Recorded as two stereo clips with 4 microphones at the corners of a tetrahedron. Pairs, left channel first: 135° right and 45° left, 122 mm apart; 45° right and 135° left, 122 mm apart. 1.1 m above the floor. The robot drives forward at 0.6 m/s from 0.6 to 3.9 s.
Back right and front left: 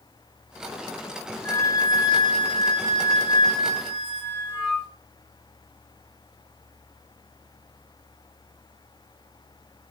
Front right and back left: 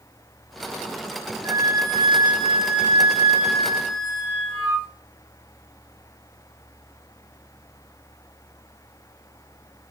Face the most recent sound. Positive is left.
turn(degrees=180)